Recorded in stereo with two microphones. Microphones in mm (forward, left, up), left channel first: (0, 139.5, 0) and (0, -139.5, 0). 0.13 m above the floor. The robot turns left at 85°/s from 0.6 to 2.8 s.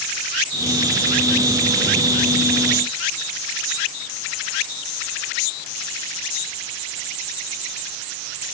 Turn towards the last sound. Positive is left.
No sound to turn to.